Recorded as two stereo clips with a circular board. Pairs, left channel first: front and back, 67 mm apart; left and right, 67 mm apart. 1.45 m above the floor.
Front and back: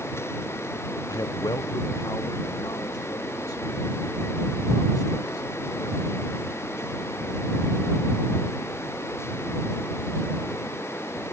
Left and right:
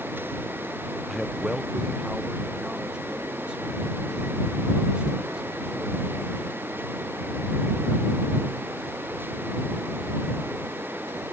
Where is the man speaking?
5° right; by 6.1 s 15° right.